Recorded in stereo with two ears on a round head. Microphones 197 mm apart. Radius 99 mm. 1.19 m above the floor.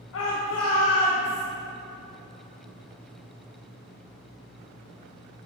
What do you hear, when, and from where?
0.1 s a shout: 60° left (ahead or behind), 1.5 m; by 1.4 s 80° left, 2.5 m